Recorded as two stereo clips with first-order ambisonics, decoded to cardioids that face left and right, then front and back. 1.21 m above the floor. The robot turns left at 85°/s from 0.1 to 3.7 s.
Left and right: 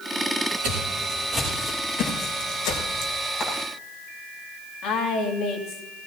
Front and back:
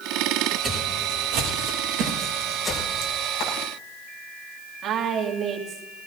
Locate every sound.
0.6 s footsteps: 95° right, 7.5 m; by 3.1 s 35° left, 4 m
3.4 s frying: 35° left, 7.5 m; by 3.5 s 25° left, 7.5 m
4.8 s a woman speaking: 125° left, 3 m